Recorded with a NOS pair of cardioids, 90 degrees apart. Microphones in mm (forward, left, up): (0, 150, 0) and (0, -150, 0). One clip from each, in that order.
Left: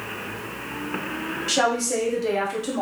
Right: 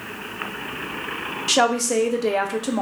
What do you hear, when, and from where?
1.5 s a woman speaking: 30° right, 0.9 m